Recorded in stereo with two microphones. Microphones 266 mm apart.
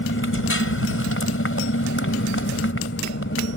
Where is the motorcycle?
50° left (ahead or behind).